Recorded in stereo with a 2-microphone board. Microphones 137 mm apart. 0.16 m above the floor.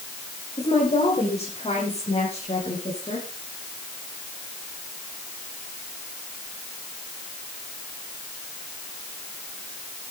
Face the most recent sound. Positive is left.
turn(degrees=45)  # may be behind; listen again after turning